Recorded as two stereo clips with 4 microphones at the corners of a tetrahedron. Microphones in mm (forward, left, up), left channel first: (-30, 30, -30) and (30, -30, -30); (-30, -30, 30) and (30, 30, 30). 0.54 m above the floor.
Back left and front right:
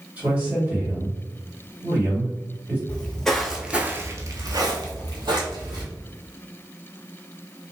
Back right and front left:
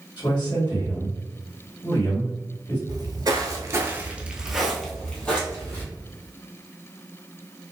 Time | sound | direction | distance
0.2 | a man speaking | 110° right | 1.8 m
2.9 | footsteps | 65° left | 0.9 m